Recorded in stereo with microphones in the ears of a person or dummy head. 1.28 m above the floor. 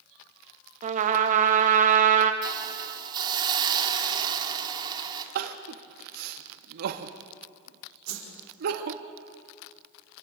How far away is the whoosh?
About 5 m.